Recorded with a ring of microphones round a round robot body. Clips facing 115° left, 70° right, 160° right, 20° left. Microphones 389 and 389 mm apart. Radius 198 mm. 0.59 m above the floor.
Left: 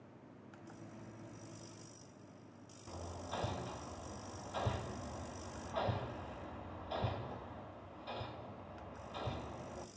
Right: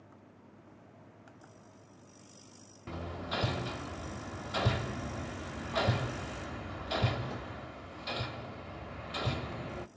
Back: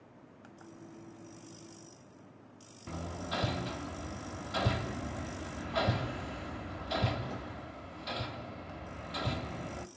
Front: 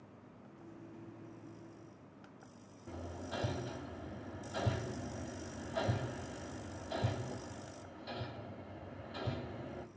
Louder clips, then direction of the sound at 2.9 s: Right 7 dB, back 4 dB; 100° right.